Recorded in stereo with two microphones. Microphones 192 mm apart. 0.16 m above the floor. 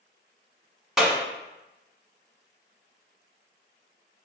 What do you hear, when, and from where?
1.0 s a clap: 5° right (ahead or behind), 1.1 m